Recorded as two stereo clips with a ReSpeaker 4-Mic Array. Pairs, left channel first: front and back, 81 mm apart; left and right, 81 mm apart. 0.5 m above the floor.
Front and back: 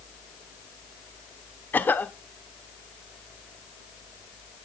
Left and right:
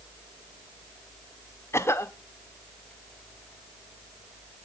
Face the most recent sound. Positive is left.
turn(degrees=55)